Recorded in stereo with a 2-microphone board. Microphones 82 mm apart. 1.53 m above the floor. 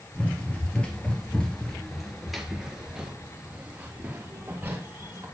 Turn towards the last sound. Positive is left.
turn(degrees=-25)  # may be behind; listen again after turning